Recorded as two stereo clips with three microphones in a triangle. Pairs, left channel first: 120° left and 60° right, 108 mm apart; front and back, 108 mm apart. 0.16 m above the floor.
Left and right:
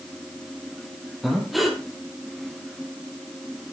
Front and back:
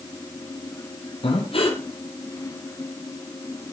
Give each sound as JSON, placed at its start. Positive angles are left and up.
{"t": 1.2, "sound": "breathing", "azimuth_deg": 30, "distance_m": 3.0}